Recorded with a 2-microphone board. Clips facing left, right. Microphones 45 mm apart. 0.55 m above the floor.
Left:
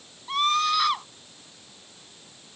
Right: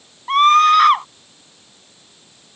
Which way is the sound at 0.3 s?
50° right (ahead or behind).